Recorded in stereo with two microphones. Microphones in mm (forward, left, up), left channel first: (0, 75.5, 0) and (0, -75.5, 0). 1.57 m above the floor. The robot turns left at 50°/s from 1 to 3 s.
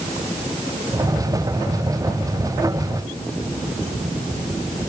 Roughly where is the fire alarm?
I don't hear a fire alarm.